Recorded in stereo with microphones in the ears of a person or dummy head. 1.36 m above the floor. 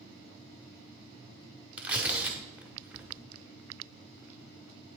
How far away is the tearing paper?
About 1.2 m.